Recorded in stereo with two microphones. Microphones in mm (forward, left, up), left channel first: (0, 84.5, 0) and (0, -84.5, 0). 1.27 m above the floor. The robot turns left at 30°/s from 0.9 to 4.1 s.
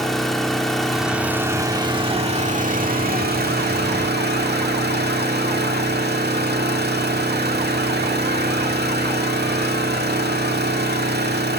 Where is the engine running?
Straight ahead, 1.9 m; by 11.6 s 95° right, 1.9 m.